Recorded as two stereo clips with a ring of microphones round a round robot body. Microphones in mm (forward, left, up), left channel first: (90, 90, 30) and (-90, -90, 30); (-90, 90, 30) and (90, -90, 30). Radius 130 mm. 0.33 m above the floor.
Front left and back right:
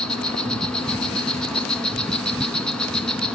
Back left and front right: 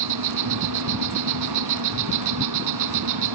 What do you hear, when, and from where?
0.0 s an insect: 40° right, 1.9 m